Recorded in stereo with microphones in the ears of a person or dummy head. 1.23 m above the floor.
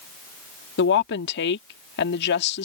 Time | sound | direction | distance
0.8 | a woman speaking | 60° left (ahead or behind) | ?